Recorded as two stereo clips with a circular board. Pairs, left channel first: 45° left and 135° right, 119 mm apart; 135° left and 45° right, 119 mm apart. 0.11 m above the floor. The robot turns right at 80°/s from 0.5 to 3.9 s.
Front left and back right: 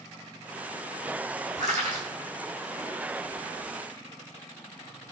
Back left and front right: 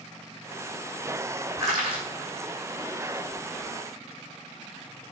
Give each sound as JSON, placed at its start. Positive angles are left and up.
{"t": 1.6, "sound": "crushing", "azimuth_deg": -115, "distance_m": 2.5}